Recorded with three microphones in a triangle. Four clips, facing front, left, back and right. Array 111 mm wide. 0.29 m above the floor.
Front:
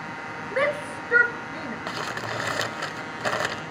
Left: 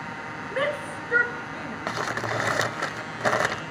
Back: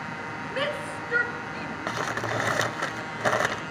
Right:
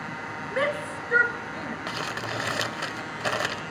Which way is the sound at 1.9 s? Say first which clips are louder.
Left 7 dB, back 4 dB; 115° left.